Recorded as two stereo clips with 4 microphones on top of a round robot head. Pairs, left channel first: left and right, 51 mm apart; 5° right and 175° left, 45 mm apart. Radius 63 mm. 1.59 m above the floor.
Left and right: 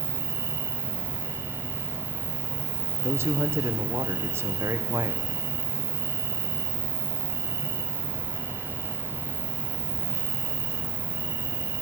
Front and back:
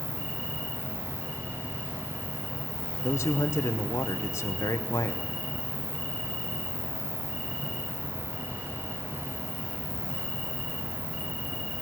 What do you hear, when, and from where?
0.0 s an insect: 90° right, 1.6 m
3.0 s a man speaking: 40° right, 0.9 m